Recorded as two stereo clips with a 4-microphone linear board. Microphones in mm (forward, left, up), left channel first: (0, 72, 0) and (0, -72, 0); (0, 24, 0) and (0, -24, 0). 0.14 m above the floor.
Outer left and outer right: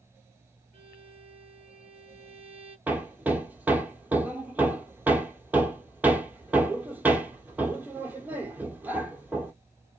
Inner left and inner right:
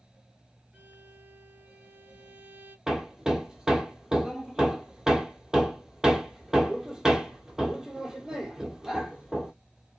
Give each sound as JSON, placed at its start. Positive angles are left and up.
{"t": 0.7, "sound": "a violin", "side_deg": -45, "distance_m": 2.0}
{"t": 2.9, "sound": "hammering", "side_deg": -10, "distance_m": 0.9}